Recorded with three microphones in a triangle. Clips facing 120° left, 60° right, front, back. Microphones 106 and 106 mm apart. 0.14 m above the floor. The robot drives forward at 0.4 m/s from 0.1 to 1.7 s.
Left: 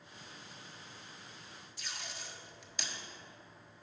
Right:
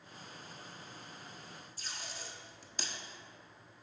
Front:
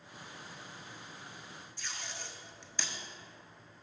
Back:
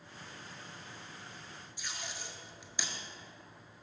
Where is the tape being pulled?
105° right, 0.8 m.